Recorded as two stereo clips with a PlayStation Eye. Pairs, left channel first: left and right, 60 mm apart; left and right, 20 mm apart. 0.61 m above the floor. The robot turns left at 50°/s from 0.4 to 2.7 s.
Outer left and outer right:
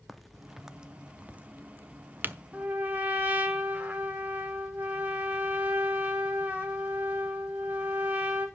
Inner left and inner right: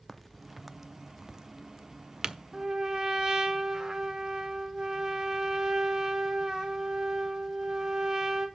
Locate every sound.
0.1 s a crack: centre (ahead or behind), 0.5 m; by 2.4 s 35° right (ahead or behind), 0.5 m
2.5 s a trumpet: 25° right (ahead or behind), 1.8 m; by 8.5 s 35° right (ahead or behind), 1.8 m